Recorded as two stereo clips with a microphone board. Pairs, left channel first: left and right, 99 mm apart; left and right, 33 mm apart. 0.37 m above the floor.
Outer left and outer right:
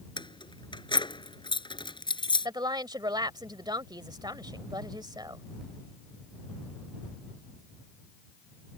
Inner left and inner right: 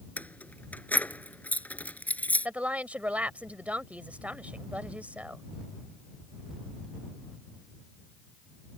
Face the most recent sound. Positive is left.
turn(degrees=-45)  # may be behind; listen again after turning